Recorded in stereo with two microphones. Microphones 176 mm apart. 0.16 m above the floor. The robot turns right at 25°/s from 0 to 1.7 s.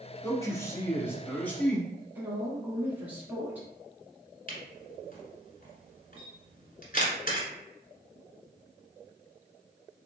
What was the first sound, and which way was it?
A man speaking, 20° left (ahead or behind).